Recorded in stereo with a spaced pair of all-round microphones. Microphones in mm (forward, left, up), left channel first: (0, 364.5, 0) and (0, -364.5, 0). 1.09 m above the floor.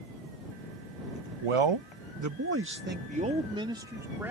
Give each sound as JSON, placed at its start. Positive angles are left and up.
{"t": 1.4, "sound": "a man speaking", "side_deg": -50}